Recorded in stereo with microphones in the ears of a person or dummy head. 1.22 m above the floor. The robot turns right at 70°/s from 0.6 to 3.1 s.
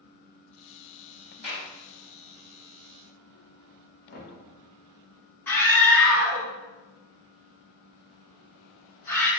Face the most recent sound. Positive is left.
turn(degrees=10)  # may be behind; listen again after turning